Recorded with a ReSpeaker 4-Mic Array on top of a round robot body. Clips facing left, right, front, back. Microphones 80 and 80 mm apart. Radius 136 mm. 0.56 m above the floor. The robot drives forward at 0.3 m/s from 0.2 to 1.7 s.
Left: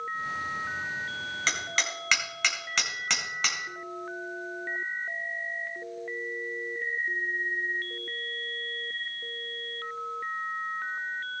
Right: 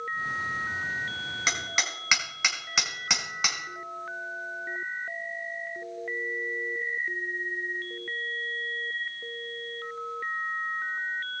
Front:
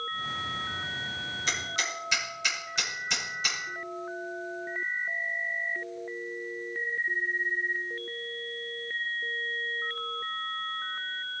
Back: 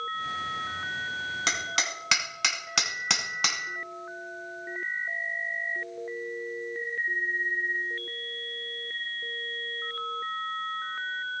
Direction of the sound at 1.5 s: 170° right.